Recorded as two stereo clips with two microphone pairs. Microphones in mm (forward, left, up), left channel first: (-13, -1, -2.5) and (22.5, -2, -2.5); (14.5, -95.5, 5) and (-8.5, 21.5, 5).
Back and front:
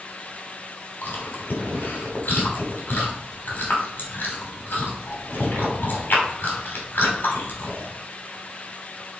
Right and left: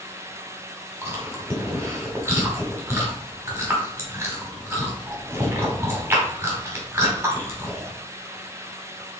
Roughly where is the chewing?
Behind.